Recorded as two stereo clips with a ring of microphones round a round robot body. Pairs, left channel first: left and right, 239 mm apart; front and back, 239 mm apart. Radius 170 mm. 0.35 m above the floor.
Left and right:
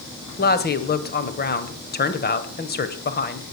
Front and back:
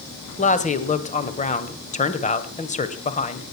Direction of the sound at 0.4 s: 55° left.